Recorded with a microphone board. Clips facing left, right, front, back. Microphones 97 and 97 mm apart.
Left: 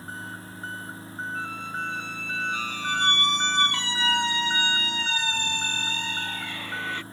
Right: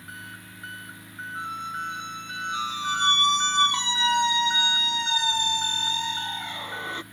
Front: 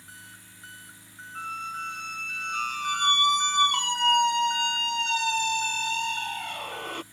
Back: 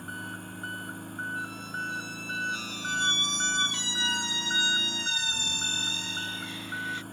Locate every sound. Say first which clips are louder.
0.0 s an engine running: left 4 dB, back 11 dB; 145° left
1.4 s a squeak: right 3 dB, front 1 dB; 20° right